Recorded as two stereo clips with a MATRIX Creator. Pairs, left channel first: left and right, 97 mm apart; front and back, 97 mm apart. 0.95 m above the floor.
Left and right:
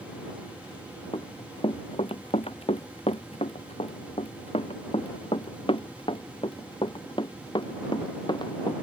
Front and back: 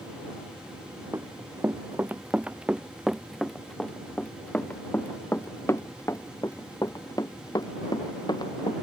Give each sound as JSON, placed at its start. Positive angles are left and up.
{"t": 1.1, "sound": "running footsteps", "azimuth_deg": 120}